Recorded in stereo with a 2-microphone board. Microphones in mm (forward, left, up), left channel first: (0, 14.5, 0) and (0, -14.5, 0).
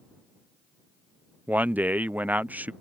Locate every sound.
1.5 s a man speaking: 80° right